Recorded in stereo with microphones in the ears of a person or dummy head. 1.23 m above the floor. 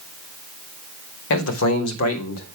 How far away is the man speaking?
About 1.4 m.